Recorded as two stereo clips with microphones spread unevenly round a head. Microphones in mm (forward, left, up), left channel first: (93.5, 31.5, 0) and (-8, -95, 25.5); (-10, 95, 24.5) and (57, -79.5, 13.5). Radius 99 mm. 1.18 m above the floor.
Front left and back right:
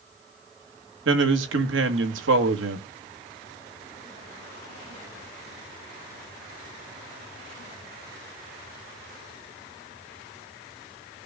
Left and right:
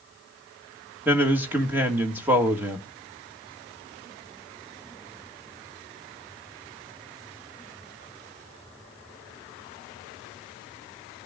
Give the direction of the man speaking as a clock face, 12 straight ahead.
5 o'clock.